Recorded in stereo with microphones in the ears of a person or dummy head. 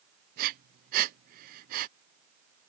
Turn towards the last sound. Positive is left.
turn(degrees=-50)  # may be behind; listen again after turning